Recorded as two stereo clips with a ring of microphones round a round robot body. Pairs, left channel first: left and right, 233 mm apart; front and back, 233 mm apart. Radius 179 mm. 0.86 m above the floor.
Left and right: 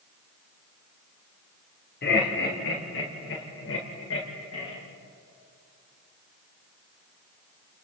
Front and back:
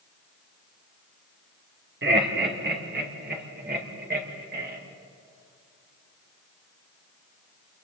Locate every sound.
2.0 s laughter: 145° left, 3 m; by 4.8 s 130° left, 5 m